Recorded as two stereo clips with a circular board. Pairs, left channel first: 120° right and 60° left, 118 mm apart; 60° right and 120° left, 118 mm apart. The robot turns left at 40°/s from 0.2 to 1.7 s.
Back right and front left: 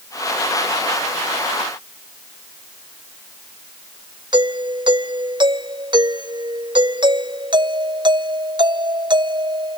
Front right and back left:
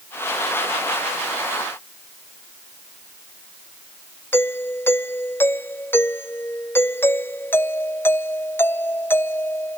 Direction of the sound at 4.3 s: 10° left.